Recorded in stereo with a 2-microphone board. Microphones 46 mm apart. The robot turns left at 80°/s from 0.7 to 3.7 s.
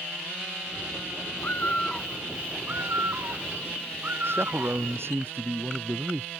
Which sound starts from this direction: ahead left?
A bird, at 1.4 s.